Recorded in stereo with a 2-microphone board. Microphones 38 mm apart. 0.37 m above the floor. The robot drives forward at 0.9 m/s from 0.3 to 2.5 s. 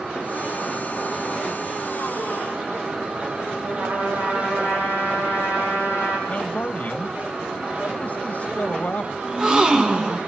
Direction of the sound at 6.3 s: 40° left (ahead or behind).